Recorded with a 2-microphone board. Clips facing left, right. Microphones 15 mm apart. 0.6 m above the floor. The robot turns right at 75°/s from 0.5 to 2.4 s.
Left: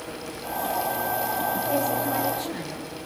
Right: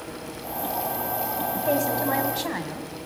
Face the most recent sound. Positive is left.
turn(degrees=-65)